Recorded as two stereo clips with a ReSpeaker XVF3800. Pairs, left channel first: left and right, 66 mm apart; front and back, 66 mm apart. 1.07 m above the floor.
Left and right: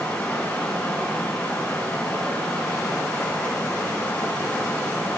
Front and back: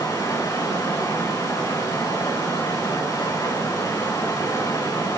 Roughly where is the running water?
Ahead.